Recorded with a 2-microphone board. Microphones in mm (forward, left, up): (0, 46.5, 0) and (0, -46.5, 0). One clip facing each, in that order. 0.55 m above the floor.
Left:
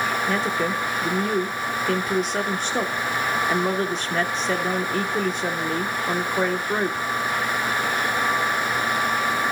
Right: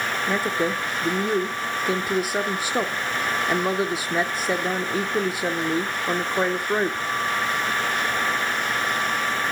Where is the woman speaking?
10° right (ahead or behind), 0.9 m.